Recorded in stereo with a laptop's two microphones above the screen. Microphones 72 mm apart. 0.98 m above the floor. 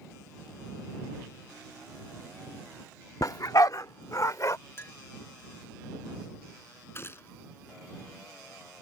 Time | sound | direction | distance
3.2 | a dog barking | 55° left (ahead or behind) | ?
4.8 | a clink | 35° left (ahead or behind) | ?
7.0 | a gunshot | 35° left (ahead or behind) | ?